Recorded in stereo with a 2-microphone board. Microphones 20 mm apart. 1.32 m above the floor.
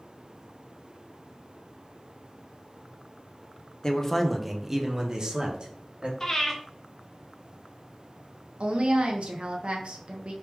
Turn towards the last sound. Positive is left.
turn(degrees=-60)  # may be behind; listen again after turning